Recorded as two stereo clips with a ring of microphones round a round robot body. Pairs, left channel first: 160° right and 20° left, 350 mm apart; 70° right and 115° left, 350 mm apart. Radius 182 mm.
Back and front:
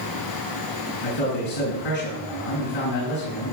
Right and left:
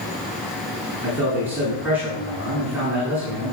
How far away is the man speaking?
About 8.5 m.